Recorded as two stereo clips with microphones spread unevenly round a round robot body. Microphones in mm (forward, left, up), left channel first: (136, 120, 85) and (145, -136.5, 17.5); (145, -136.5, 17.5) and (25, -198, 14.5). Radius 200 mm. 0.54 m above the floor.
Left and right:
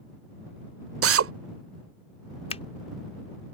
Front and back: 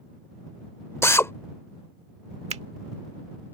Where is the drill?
50° right.